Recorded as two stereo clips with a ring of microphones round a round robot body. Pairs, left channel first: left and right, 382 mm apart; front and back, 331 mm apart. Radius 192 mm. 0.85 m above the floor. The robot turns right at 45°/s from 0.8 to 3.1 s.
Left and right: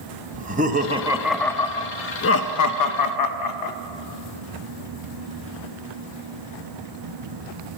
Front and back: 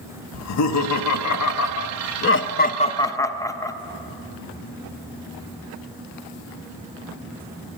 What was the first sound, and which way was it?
Laughter, 25° right.